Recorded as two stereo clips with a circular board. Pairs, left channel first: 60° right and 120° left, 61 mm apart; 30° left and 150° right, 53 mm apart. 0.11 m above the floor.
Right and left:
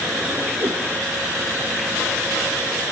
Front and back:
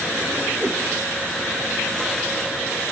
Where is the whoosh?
145° left, 5 m.